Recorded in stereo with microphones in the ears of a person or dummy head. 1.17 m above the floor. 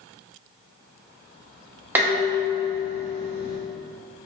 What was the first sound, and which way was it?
Dishes clattering, 15° right (ahead or behind).